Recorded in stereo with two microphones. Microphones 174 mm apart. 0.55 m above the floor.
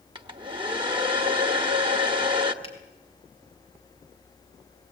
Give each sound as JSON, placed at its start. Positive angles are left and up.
{"t": 0.1, "sound": "a hair dryer", "side_deg": -30, "distance_m": 1.1}
{"t": 2.6, "sound": "a finger snap", "side_deg": 30, "distance_m": 4.0}